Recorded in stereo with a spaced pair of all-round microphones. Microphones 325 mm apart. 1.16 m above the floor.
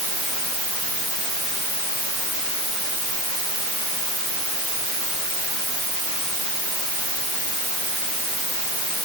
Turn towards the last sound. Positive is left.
No sound to turn to.